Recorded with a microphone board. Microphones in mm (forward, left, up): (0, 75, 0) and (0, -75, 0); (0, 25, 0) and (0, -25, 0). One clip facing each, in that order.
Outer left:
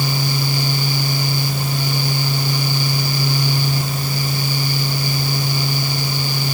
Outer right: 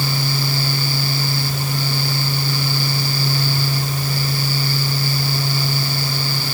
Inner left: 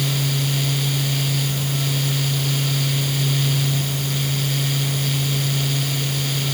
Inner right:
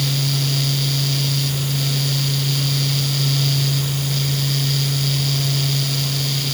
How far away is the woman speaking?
No woman speaking in this recording.